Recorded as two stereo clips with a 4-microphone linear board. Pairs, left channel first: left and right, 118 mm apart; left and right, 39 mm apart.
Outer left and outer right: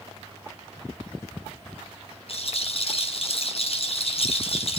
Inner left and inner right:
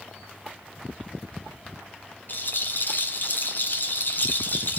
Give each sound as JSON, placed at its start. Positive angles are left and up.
{"t": 2.3, "sound": "a rattle", "side_deg": 55, "distance_m": 1.7}